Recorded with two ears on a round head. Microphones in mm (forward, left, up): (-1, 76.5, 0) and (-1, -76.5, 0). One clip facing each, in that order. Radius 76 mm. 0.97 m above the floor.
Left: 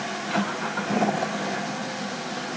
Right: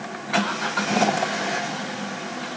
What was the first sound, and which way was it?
Only background noise.